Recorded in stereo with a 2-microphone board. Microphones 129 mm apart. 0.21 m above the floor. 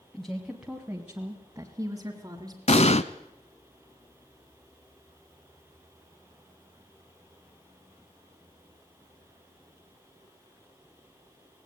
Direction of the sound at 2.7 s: 60° left (ahead or behind).